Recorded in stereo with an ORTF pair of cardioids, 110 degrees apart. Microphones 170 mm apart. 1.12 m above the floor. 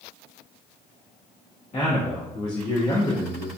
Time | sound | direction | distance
1.7 | a man speaking | 50° left | 1.9 m